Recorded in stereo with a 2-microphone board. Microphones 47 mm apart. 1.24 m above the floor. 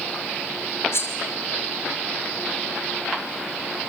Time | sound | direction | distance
0.9 | cutlery clinking | 65° left (ahead or behind) | 3 m